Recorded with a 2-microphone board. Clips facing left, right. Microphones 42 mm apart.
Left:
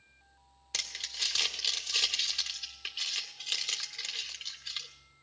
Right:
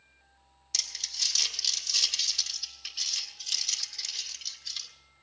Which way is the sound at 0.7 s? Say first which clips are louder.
Left 1 dB; 25° left (ahead or behind).